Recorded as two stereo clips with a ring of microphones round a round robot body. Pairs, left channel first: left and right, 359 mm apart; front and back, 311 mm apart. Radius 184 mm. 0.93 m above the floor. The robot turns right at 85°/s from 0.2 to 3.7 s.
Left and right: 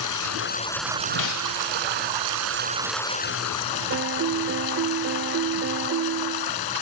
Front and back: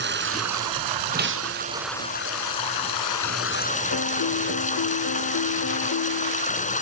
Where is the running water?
125° left; by 6.8 s 65° left.